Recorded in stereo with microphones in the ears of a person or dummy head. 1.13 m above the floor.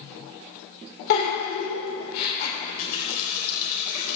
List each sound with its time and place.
1.1 s a giggle: 55° left (ahead or behind), 3.5 m
2.6 s a running tap: 50° left (ahead or behind), 3.5 m